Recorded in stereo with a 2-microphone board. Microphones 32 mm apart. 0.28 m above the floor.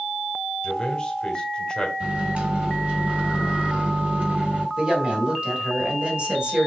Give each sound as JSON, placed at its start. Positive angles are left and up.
{"t": 0.6, "sound": "a man speaking", "side_deg": 25, "distance_m": 1.3}
{"t": 2.0, "sound": "a microwave", "side_deg": -45, "distance_m": 1.7}
{"t": 4.8, "sound": "a woman speaking", "side_deg": -35, "distance_m": 1.9}